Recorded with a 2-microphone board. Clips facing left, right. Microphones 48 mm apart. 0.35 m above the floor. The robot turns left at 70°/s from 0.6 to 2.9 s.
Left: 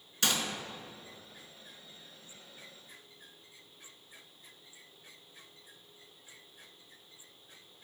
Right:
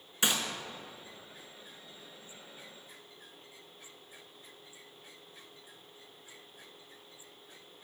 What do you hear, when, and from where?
0.2 s a gunshot: 15° right (ahead or behind), 0.9 m